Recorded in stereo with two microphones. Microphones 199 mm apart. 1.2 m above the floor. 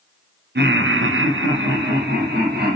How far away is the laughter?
About 0.6 m.